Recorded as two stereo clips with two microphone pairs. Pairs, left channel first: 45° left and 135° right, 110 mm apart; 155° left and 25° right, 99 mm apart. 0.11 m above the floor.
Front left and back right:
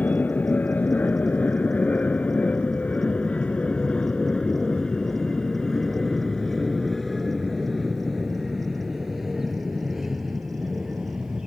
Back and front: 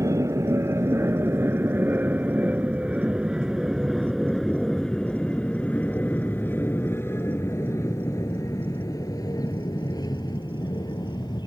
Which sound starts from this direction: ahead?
An aircraft, at 0.0 s.